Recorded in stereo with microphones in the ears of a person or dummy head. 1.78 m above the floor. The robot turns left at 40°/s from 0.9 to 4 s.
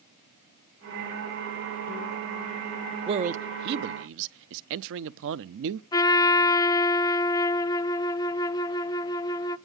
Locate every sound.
3.1 s a man speaking: 30° right (ahead or behind), 0.6 m; by 5.8 s 65° right (ahead or behind), 0.6 m
5.9 s a trumpet: 20° left (ahead or behind), 0.6 m